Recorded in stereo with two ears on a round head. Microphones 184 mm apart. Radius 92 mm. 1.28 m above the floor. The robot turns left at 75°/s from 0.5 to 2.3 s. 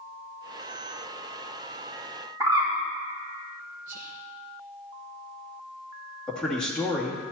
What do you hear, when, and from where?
2.4 s a bird: 20° right (ahead or behind), 2.5 m
3.9 s whispering: 40° right (ahead or behind), 1.1 m
6.3 s a man speaking: 5° left (ahead or behind), 2 m